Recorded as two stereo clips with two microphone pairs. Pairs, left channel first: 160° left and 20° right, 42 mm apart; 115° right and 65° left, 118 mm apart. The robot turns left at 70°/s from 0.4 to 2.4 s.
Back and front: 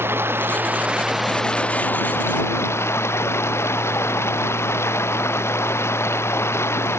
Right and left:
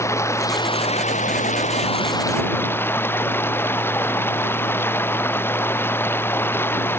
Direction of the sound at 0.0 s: 50° right.